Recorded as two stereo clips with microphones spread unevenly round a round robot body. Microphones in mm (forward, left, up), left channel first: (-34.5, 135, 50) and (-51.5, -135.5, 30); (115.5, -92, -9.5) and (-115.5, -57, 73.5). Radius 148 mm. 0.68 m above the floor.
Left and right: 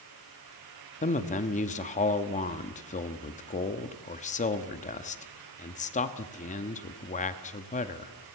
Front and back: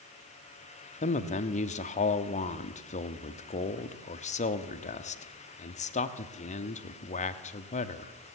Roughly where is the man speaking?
Ahead left.